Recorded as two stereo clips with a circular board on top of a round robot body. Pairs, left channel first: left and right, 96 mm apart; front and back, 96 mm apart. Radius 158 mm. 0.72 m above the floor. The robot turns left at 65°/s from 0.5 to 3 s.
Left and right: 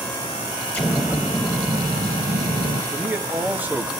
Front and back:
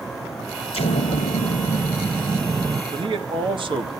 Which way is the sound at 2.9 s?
155° right.